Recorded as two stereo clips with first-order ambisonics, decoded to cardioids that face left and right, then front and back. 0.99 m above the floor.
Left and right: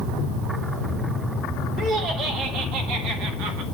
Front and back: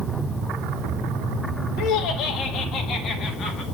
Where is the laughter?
35° right, 2.0 m; by 3.6 s 70° right, 2 m.